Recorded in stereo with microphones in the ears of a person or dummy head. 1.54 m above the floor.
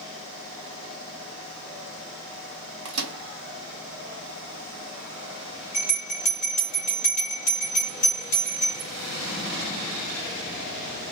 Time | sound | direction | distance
2.9 | a microwave | 75° right (ahead or behind) | 0.9 m
5.7 | a bell | 45° left (ahead or behind) | 1.0 m